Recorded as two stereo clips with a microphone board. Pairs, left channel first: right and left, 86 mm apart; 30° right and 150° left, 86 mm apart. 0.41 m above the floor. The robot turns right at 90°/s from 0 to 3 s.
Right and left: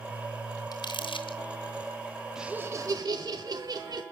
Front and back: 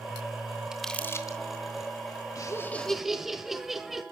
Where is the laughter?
5° left, 1.4 m; by 4.0 s 65° left, 1.4 m.